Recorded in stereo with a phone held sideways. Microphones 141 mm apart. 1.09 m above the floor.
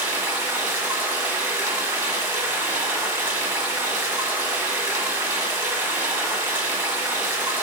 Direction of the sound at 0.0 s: 10° right (ahead or behind).